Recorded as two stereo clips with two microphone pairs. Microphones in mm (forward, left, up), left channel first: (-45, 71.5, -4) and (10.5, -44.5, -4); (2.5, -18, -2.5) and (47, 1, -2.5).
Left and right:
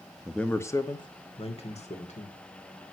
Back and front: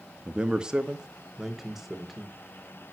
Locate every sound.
0.2 s a man speaking: 30° left, 0.9 m; by 2.4 s 110° left, 2 m